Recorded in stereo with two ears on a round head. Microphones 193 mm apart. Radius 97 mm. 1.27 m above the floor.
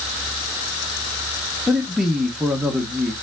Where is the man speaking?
Centre (ahead or behind), 1.2 m.